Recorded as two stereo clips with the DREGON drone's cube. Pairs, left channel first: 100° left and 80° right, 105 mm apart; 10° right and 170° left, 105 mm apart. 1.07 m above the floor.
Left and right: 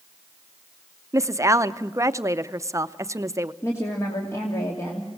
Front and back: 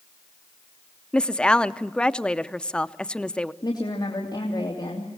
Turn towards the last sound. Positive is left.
turn(degrees=40)